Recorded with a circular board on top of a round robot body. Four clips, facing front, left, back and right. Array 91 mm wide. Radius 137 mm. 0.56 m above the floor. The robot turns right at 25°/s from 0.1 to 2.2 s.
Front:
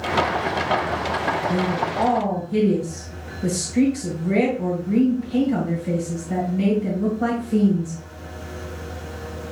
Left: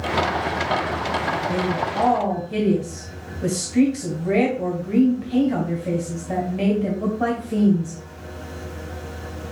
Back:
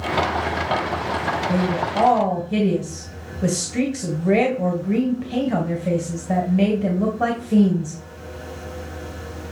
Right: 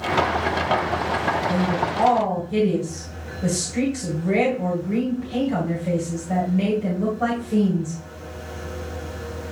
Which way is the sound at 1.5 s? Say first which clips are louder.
Right 1 dB, back 1 dB; 150° left.